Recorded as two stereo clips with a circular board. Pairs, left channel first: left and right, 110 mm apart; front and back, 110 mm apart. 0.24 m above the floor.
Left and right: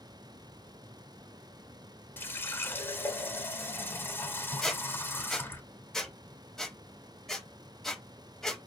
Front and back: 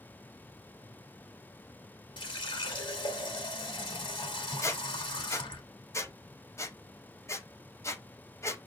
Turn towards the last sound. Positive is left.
turn(degrees=10)